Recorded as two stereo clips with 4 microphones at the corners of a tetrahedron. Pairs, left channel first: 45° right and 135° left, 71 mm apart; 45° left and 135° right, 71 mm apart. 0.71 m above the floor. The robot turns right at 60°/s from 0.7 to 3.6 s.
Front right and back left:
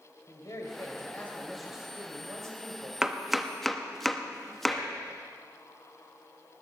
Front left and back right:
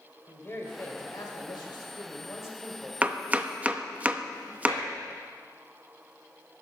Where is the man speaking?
10° right, 2.5 m; by 2.9 s 120° left, 2.5 m.